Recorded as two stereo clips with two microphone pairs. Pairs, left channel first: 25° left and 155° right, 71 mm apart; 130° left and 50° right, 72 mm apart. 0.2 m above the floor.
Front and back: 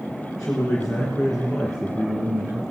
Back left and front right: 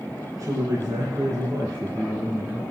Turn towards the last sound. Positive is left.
turn(degrees=-110)